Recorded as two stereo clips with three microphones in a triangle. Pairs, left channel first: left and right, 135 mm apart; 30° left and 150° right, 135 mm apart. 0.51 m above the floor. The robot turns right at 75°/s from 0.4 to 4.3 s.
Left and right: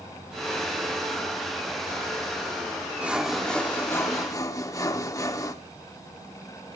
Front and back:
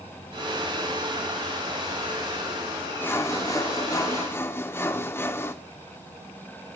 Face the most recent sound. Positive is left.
turn(degrees=75)